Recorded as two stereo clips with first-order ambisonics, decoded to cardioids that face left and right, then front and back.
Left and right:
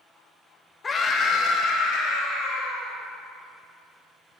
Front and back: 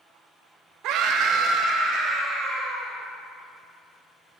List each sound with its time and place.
0.8 s a scream: 160° left, 0.5 m; by 3.0 s 120° left, 1.5 m